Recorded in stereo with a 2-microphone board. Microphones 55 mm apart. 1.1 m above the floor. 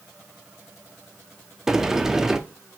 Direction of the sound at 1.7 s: 5° right (ahead or behind).